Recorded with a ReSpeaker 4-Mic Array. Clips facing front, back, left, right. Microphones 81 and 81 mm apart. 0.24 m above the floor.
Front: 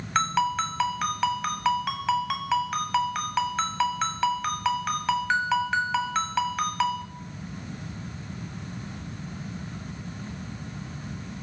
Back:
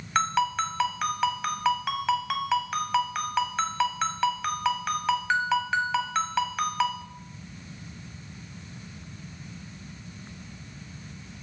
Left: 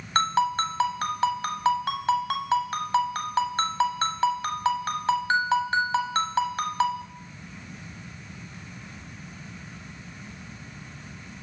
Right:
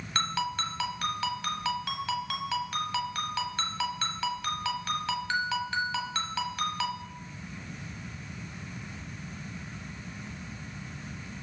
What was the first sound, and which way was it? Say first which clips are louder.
A ringtone: front 1 dB, left 8 dB; 95° left.